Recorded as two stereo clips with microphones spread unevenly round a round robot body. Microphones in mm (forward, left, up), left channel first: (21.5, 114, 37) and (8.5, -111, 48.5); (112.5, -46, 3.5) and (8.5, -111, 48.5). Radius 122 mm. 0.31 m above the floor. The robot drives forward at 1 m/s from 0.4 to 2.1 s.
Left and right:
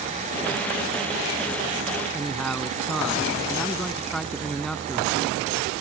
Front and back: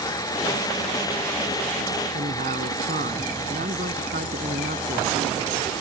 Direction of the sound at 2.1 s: 175° left.